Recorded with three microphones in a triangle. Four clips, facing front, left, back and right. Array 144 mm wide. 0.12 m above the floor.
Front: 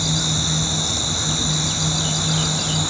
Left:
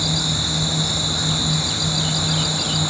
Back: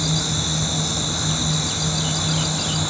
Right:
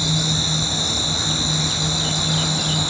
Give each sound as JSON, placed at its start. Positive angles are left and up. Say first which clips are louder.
{"t": 0.0, "sound": "an insect", "louder": "right 1 dB, even", "azimuth_deg": 20, "distance_m": 0.8}